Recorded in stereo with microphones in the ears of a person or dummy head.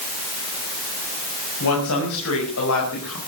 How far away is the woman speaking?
About 6.5 m.